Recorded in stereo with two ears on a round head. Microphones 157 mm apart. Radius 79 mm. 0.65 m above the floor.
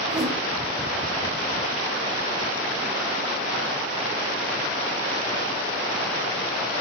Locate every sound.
0.1 s a whoosh: 20° right (ahead or behind), 1.7 m